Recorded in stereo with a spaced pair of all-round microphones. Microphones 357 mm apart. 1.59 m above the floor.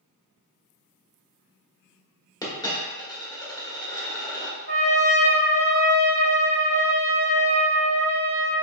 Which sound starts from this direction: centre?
A dropped coin, at 2.4 s.